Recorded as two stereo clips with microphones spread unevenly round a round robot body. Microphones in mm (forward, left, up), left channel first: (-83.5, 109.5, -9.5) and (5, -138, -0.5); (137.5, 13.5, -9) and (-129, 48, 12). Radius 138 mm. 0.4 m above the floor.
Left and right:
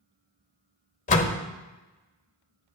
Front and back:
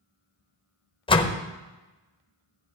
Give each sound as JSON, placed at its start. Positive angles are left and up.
{"t": 1.1, "sound": "a door slam", "azimuth_deg": 55, "distance_m": 1.0}